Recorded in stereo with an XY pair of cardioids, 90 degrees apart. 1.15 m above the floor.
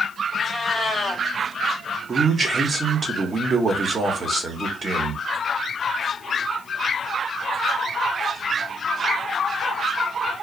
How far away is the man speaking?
About 1.2 m.